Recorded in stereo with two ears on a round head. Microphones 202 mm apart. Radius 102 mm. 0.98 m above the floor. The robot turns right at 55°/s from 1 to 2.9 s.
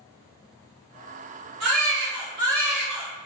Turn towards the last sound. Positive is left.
turn(degrees=0)